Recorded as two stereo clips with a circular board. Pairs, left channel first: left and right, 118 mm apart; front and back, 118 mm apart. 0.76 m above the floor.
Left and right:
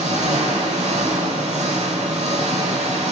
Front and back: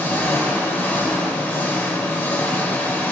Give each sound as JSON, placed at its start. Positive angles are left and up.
{"t": 0.0, "sound": "an engine running", "azimuth_deg": -70, "distance_m": 1.1}